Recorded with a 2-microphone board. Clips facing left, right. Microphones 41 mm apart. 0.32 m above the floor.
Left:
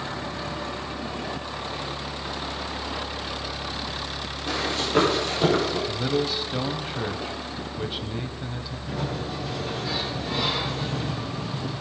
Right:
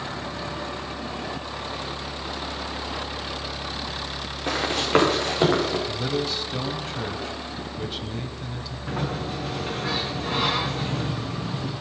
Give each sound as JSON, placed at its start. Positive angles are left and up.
{"t": 4.5, "sound": "running footsteps", "side_deg": -60, "distance_m": 6.5}
{"t": 5.9, "sound": "a man speaking", "side_deg": 10, "distance_m": 1.5}
{"t": 8.9, "sound": "a sliding door", "side_deg": -55, "distance_m": 3.5}